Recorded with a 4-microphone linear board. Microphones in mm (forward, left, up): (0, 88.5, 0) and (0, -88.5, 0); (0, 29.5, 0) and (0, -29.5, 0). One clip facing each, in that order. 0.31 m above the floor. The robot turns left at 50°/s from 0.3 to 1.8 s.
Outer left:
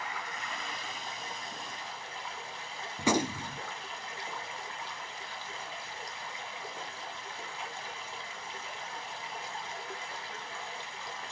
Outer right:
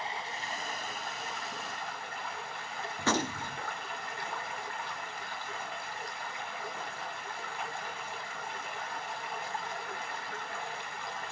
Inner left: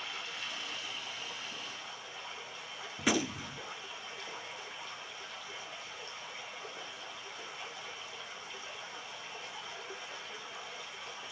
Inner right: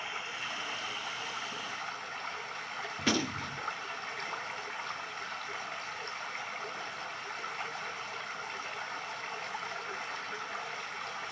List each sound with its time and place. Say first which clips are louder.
0.0 s running water: outer right 2 dB, inner right 3 dB; 35° right, 1.9 m; by 11.3 s 110° right, 1.9 m
3.0 s a gunshot: outer left 3 dB, even; 15° left (ahead or behind), 0.6 m